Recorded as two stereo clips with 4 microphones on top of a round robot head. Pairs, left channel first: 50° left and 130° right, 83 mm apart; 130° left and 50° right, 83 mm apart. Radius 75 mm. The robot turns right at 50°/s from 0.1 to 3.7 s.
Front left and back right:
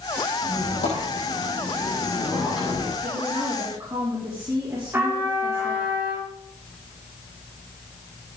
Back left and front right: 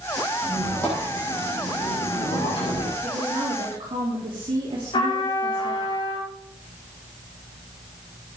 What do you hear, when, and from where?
0.4 s a squeak: 40° left, 7.5 m; by 2.9 s 165° left, 7.5 m
3.0 s a woman speaking: 110° right, 3.5 m; by 5.9 s 75° right, 3.5 m
4.9 s a trumpet: 165° left, 5 m